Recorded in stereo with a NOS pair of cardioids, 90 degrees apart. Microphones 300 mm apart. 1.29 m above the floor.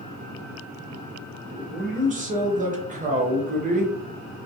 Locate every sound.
1.5 s a man speaking: 25° right, 1.0 m